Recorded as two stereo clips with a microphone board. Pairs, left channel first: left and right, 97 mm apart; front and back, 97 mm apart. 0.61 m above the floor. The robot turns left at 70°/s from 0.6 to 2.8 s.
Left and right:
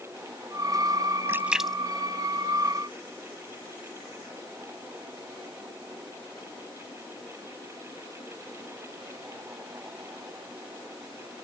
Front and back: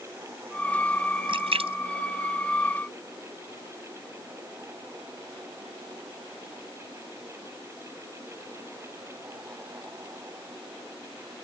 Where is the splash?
155° right; by 3.1 s 100° left.